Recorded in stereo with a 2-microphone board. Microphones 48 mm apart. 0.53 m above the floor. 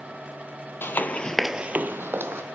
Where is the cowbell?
No cowbell in this recording.